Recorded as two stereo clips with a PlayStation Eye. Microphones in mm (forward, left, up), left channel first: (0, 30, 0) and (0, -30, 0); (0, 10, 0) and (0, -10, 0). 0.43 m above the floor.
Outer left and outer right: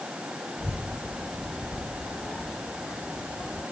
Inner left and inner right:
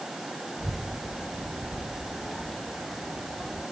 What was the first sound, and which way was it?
A child speaking, 5° right (ahead or behind).